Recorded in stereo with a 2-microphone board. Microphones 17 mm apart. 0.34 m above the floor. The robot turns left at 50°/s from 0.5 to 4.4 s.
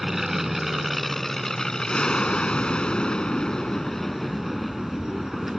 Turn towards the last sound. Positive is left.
turn(degrees=0)